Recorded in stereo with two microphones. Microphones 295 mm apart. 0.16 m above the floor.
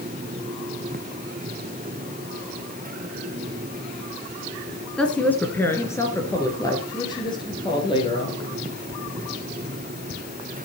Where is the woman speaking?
5° left (ahead or behind), 1.9 m; by 8.4 s 15° left (ahead or behind), 4 m.